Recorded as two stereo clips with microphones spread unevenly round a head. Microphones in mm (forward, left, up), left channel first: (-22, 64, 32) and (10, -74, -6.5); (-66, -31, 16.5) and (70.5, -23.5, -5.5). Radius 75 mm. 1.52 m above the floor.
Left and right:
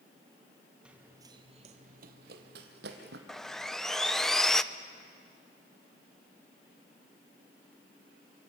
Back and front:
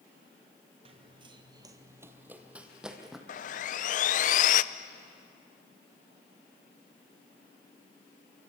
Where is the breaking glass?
I don't hear breaking glass.